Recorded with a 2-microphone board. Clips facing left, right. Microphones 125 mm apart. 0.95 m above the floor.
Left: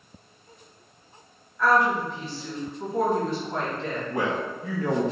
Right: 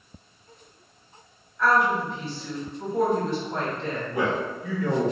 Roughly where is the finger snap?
I don't hear a finger snap.